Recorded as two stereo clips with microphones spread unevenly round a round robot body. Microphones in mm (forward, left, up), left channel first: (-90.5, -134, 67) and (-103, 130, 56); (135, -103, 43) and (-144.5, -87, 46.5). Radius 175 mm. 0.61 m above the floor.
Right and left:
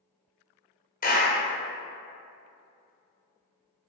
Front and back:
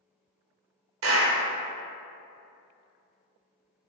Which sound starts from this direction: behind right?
A clap, at 1.0 s.